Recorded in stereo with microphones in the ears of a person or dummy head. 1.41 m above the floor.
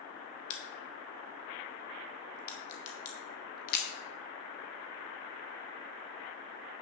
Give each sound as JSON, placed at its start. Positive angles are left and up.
{"t": 0.5, "sound": "a crack", "side_deg": 50, "distance_m": 1.4}